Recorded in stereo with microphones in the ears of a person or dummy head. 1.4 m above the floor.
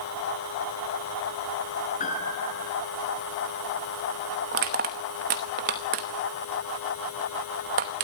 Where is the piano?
35° left (ahead or behind), 3 m.